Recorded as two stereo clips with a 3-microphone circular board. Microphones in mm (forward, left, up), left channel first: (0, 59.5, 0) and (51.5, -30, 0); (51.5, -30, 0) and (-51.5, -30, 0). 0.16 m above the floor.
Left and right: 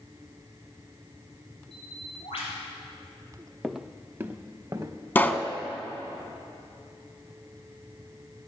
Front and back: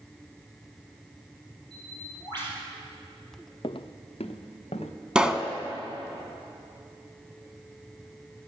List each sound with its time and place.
1.7 s a bird: 140° left, 3.5 m
3.6 s footsteps: 35° left, 0.6 m; by 4.9 s straight ahead, 1.7 m
5.2 s a pop: 115° left, 0.7 m